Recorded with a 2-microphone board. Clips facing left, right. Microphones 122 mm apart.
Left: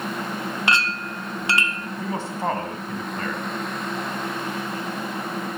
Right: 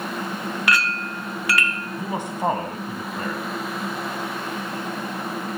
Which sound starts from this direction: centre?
A man speaking, at 2.0 s.